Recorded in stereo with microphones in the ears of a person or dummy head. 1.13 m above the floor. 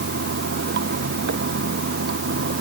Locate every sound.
0.0 s running water: 60° right (ahead or behind)